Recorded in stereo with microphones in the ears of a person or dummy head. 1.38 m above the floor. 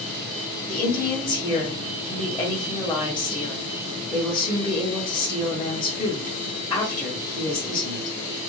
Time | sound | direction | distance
0.7 | a woman speaking | 15° left (ahead or behind) | 1.9 m